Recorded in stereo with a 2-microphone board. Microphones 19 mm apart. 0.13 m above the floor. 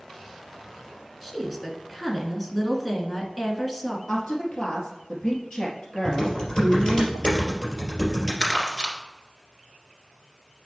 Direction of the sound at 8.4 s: 25° left (ahead or behind).